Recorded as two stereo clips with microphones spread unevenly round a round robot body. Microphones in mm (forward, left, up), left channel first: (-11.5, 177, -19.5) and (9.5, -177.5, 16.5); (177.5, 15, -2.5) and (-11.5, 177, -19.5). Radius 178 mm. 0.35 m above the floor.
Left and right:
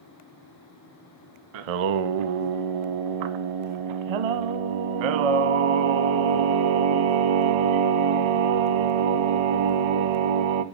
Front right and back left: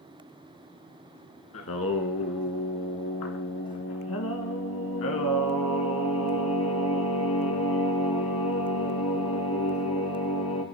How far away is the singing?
About 0.5 m.